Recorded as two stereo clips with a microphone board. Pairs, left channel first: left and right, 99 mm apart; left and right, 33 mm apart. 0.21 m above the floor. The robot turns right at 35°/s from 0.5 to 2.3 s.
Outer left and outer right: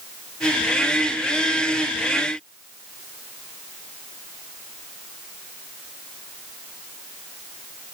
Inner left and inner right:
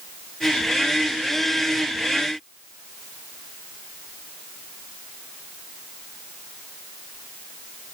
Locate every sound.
Only background noise.